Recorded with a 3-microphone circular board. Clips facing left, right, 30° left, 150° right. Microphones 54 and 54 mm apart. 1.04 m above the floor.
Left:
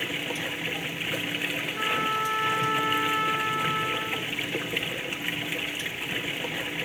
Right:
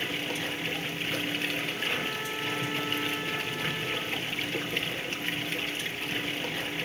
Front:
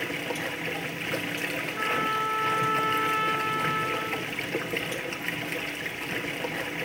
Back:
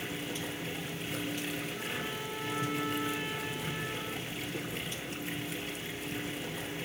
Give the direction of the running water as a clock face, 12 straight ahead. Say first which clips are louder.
Left 1 dB, front 7 dB; 11 o'clock.